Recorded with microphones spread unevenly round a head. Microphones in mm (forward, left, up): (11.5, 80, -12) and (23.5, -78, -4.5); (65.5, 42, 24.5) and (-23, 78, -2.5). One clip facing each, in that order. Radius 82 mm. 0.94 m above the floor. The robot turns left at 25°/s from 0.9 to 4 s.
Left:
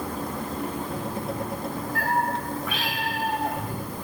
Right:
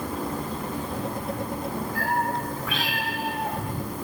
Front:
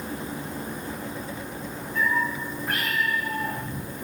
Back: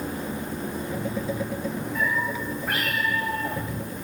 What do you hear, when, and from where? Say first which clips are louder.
1.9 s a cat meowing: left 2 dB, front 4 dB; 155° right, 2.0 m; by 4.0 s 150° left, 2.0 m